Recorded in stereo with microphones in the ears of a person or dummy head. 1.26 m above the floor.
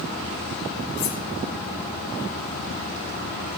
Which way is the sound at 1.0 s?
60° left (ahead or behind).